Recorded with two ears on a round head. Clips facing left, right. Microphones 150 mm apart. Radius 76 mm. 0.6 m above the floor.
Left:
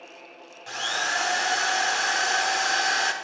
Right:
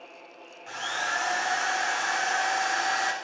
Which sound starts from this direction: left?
A drill, at 0.7 s.